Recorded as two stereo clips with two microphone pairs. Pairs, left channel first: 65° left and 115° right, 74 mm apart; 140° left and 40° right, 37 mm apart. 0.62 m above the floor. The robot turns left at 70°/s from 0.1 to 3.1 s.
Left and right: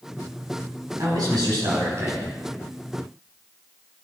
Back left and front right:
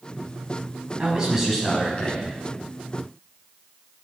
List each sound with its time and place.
1.0 s a man speaking: 90° right, 4.5 m; by 2.2 s straight behind, 4.5 m